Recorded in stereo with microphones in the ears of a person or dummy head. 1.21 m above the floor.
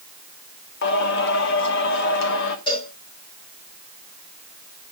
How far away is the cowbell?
About 3.5 m.